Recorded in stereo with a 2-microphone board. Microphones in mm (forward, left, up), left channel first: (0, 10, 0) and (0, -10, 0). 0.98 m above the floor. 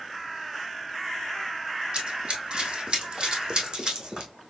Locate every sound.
1.9 s running footsteps: 55° right (ahead or behind), 1.6 m; by 4.3 s 45° right (ahead or behind), 2 m